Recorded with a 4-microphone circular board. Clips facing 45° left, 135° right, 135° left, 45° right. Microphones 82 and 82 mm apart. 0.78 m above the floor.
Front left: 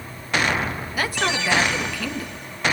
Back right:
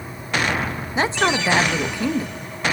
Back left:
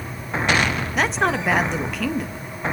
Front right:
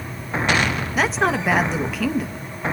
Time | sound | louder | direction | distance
0.9 | a woman speaking | back right 5 dB, front right 1 dB | 135° right | 0.5 m